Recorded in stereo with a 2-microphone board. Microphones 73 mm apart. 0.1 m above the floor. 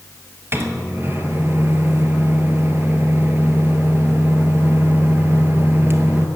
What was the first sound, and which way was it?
A microwave, 35° right (ahead or behind).